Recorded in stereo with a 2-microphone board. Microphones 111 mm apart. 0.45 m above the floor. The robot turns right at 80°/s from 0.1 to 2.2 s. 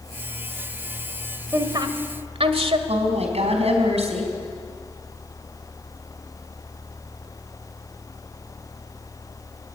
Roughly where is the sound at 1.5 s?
Right.